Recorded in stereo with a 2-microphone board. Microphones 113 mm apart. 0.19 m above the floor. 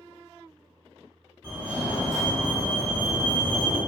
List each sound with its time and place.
1.4 s a fire alarm: 20° right (ahead or behind), 1.9 m